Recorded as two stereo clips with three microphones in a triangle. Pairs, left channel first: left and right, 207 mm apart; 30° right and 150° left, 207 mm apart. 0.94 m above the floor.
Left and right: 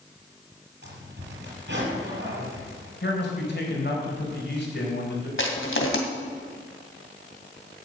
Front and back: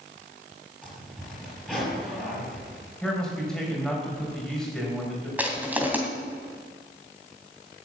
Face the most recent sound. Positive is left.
turn(degrees=70)